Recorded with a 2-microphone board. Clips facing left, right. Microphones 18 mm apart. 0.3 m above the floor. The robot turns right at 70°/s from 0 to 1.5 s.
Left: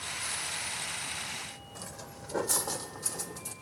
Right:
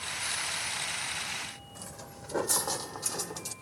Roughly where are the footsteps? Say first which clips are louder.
Left 1 dB; centre.